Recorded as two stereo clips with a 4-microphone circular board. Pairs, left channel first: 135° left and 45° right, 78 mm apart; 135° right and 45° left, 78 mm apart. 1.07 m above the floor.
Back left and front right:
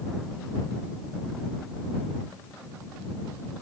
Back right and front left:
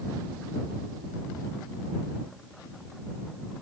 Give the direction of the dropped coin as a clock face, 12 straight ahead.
No dropped coin in this recording.